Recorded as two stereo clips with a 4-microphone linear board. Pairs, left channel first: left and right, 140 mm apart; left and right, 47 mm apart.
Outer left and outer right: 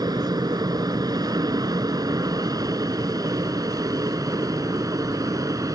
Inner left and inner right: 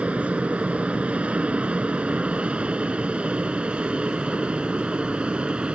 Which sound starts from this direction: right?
An aircraft, at 0.0 s.